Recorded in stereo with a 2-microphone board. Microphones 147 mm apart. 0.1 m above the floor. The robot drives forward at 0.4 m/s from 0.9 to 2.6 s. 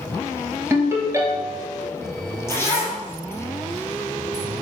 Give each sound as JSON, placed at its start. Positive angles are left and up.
{"t": 0.7, "sound": "a ringtone", "side_deg": -15, "distance_m": 1.4}
{"t": 2.5, "sound": "a zipper", "side_deg": 20, "distance_m": 1.4}